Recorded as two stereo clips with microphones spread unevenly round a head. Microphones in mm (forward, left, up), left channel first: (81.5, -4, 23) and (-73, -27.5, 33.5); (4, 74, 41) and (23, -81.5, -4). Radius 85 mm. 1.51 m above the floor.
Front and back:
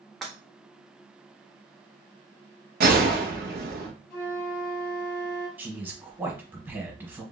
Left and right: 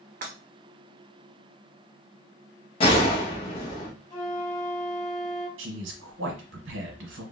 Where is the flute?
90° left, 1.8 m.